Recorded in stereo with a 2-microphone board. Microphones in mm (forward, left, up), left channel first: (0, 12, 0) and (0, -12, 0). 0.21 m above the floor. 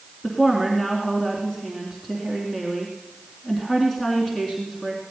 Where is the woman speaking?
15° left (ahead or behind), 3 m.